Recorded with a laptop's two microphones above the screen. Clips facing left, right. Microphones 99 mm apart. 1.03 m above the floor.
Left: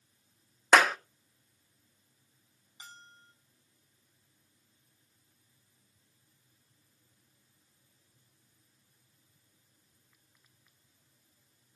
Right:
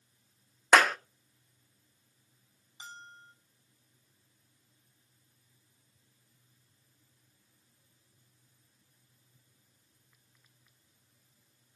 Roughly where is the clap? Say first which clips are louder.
Even; centre.